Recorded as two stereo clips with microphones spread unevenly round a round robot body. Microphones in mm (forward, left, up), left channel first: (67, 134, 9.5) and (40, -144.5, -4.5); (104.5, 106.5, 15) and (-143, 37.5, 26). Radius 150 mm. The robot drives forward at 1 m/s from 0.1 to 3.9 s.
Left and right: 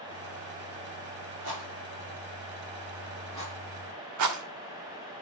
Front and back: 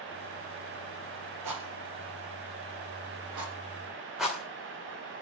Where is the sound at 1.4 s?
135° right, 5 m; by 3.5 s 150° right, 6.5 m.